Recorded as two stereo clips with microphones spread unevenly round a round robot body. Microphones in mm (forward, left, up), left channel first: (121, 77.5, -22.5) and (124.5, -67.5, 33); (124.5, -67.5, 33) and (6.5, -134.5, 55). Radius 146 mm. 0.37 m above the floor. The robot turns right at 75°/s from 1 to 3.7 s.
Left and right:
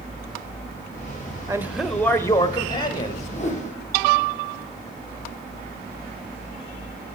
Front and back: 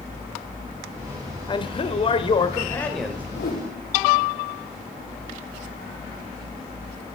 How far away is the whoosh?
About 4.5 m.